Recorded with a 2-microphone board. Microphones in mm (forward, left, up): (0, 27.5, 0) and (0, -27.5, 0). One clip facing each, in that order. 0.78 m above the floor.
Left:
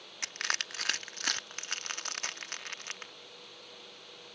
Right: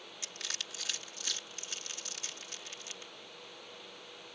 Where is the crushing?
55° left (ahead or behind).